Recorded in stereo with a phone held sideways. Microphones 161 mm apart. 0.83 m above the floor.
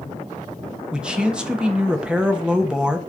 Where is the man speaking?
5° right (ahead or behind), 0.8 m.